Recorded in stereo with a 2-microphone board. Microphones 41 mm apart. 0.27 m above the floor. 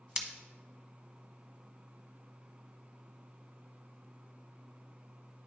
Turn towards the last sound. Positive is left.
turn(degrees=-25)  # may be behind; listen again after turning